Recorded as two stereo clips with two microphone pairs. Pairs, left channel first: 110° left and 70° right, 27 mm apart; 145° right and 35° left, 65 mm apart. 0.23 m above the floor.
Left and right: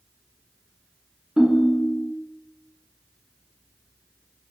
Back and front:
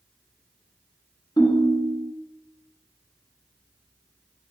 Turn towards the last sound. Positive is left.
turn(degrees=-140)